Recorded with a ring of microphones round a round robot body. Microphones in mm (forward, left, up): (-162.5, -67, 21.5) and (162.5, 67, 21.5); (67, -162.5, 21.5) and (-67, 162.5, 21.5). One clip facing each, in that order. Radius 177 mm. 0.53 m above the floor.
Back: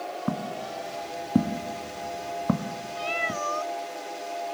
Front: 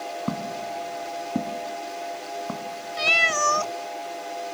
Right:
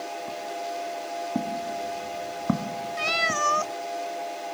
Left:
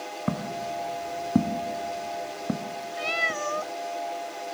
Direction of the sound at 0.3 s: 115° left.